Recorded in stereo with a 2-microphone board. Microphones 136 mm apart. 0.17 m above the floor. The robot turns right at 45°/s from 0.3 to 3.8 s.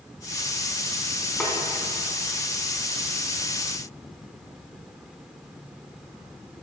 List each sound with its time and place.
1.4 s a snare drum: 5° left (ahead or behind), 1.7 m; by 1.5 s 10° left (ahead or behind), 1.7 m